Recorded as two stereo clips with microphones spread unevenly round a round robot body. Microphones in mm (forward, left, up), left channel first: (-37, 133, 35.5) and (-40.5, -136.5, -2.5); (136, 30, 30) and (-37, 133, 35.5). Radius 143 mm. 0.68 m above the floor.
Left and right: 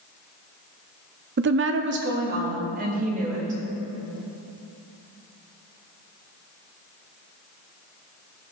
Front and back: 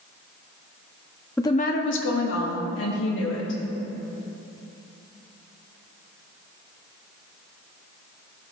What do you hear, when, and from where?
1.4 s a woman speaking: 110° right, 0.6 m; by 3.6 s 25° right, 3 m